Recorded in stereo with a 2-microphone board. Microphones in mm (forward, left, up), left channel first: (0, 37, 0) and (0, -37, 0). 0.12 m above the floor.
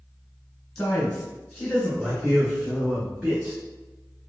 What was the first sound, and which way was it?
A man speaking, 15° left (ahead or behind).